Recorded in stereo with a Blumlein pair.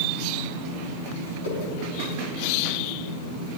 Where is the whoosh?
65° left, 6 m.